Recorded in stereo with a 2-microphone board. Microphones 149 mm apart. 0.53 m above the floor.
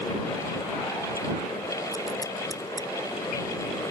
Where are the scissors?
25° left (ahead or behind).